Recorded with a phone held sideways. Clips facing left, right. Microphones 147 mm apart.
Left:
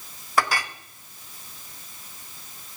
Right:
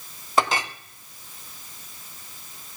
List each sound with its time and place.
0.4 s a clink: 25° right (ahead or behind), 0.6 m